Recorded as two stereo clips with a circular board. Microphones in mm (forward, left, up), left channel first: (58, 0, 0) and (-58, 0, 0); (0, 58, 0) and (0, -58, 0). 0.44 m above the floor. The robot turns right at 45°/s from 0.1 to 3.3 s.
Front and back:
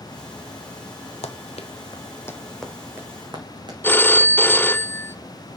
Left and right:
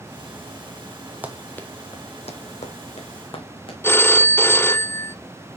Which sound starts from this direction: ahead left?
A phone ringing, at 3.8 s.